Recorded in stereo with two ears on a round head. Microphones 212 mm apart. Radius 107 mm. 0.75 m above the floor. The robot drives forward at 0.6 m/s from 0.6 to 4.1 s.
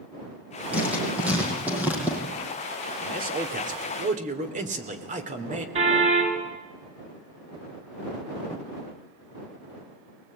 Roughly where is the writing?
Centre.